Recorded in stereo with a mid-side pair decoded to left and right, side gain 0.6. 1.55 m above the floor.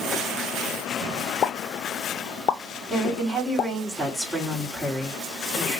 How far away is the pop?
About 0.7 m.